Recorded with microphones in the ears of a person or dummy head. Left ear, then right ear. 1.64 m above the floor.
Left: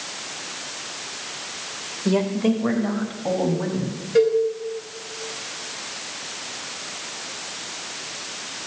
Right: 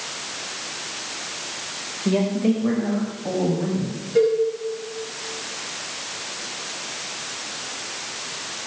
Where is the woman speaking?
35° left (ahead or behind), 1.9 m; by 4.0 s 55° left (ahead or behind), 4 m.